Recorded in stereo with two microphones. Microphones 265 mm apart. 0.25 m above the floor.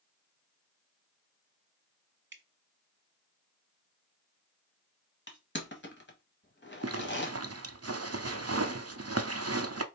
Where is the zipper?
65° right (ahead or behind), 0.5 m.